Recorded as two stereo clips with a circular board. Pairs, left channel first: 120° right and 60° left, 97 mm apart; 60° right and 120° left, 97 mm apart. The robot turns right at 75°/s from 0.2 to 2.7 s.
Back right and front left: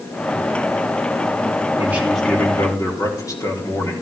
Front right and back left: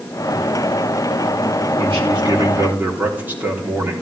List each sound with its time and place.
1.8 s a man speaking: 120° left, 4 m; by 4.0 s 170° right, 4 m